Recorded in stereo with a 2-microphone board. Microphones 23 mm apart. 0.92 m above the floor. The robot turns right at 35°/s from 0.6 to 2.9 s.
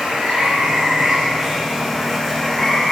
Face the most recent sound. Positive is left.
turn(degrees=30)